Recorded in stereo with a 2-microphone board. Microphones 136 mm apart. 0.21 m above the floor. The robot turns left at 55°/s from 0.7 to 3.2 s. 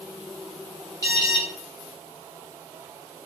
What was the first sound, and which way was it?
An alarm, 25° left (ahead or behind).